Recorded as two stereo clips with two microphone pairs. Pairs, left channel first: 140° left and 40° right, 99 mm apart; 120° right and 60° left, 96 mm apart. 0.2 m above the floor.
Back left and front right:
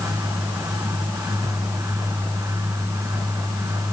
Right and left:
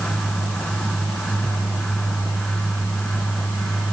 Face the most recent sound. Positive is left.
No sound to turn to.